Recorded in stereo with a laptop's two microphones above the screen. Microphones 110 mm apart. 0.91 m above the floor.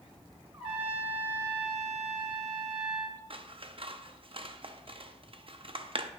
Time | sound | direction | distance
0.5 | a trumpet | 45° right (ahead or behind) | 1.6 m
3.3 | scissors | 50° right (ahead or behind) | 0.6 m